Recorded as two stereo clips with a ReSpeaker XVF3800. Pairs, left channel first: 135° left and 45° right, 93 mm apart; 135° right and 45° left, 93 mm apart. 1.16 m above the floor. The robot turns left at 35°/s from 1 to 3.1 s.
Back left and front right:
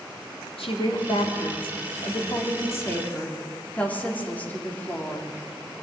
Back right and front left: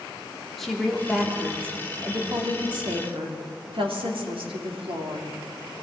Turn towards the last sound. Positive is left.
turn(degrees=60)